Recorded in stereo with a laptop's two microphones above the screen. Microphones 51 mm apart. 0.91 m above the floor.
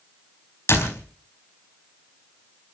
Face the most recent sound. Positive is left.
turn(degrees=60)  # may be behind; listen again after turning